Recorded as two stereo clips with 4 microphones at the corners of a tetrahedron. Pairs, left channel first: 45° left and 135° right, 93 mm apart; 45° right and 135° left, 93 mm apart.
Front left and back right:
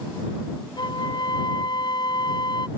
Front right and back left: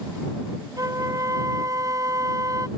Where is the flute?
80° left.